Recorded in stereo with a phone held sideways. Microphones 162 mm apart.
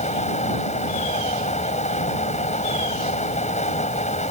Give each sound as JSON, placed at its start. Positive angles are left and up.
{"t": 0.0, "sound": "a fan", "side_deg": 45}